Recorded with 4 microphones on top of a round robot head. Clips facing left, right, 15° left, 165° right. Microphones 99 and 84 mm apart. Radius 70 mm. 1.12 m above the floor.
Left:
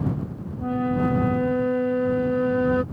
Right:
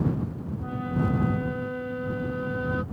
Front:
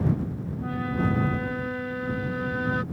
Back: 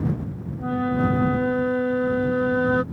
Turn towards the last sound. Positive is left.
turn(degrees=145)